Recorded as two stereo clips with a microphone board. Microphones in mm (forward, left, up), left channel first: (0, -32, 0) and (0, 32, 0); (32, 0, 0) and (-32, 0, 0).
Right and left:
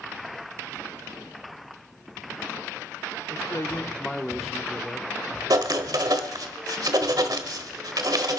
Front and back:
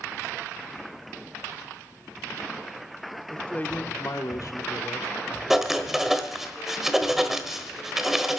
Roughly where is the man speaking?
Right.